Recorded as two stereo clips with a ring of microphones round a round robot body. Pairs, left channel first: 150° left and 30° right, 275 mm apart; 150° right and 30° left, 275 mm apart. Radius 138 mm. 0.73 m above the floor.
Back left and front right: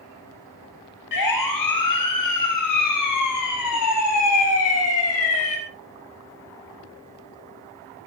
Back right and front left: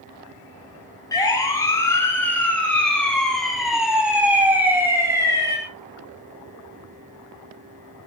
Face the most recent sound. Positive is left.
turn(degrees=105)